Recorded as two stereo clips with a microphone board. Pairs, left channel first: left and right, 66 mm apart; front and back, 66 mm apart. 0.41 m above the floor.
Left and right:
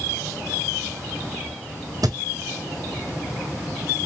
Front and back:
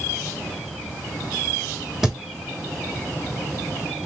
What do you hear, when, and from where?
2.0 s a thud: 95° right, 1.1 m